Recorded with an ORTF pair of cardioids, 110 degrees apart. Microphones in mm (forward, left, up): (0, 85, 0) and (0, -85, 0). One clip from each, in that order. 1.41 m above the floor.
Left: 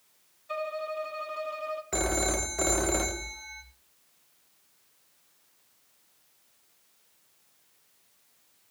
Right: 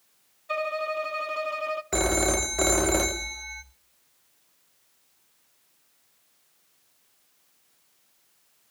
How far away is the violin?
About 1.0 m.